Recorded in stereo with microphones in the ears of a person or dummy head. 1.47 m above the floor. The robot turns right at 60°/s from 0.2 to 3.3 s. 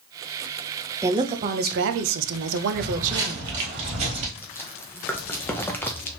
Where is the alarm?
No alarm in this recording.